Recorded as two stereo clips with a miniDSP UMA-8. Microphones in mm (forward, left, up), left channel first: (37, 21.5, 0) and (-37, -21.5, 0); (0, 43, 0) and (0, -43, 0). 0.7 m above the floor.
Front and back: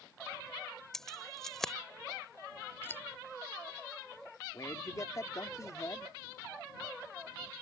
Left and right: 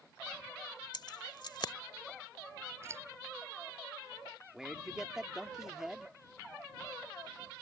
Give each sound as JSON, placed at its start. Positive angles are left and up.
{"t": 0.9, "sound": "keys jangling", "azimuth_deg": 115}
{"t": 2.8, "sound": "scissors", "azimuth_deg": -30}
{"t": 4.5, "sound": "a man speaking", "azimuth_deg": -10}